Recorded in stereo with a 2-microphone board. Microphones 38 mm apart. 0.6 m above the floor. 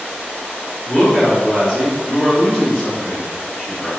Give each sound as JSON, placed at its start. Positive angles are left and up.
{"t": 0.8, "sound": "a woman speaking", "side_deg": 25, "distance_m": 1.3}